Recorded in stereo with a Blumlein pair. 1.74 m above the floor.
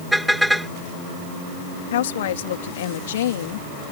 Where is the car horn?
Straight ahead.